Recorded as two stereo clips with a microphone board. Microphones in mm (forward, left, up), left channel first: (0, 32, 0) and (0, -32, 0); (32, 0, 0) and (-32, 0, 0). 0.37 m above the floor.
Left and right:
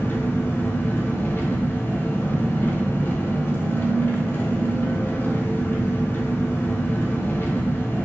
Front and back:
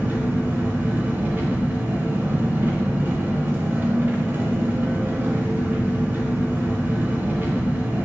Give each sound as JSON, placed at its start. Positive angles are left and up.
{"t": 0.0, "sound": "an engine running", "azimuth_deg": 135, "distance_m": 0.7}